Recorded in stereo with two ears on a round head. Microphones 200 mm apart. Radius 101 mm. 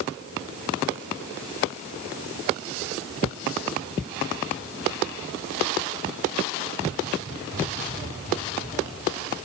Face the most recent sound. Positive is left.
No sound to turn to.